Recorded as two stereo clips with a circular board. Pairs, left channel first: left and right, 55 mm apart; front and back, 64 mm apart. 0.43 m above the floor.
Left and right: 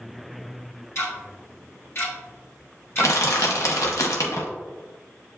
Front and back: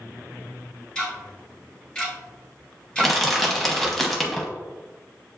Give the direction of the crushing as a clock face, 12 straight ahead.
9 o'clock.